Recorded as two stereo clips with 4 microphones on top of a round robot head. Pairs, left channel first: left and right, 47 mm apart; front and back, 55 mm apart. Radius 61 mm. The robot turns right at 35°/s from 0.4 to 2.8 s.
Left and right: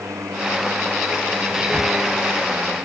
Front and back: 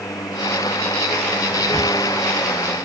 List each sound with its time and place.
1.5 s whispering: 175° left, 2.5 m; by 1.9 s 170° right, 2.5 m